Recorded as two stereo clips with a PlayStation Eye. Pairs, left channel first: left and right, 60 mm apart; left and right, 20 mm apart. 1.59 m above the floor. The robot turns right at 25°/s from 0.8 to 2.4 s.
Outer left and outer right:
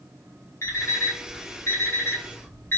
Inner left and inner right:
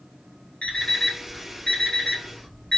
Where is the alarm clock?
55° left (ahead or behind), 1.3 m; by 2.8 s 40° left (ahead or behind), 1.3 m.